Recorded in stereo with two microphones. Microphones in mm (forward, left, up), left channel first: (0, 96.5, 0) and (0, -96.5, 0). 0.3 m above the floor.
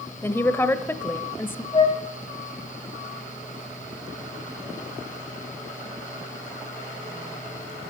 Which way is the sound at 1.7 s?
25° left (ahead or behind).